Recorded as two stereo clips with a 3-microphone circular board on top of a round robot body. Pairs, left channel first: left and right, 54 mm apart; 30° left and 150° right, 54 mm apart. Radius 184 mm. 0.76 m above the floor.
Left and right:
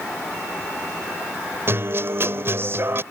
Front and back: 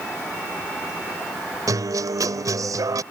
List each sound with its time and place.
1.7 s a guitar: 135° right